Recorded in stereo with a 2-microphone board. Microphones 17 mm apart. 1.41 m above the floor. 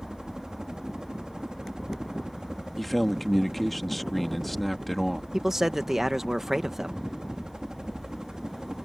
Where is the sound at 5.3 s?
30° right (ahead or behind).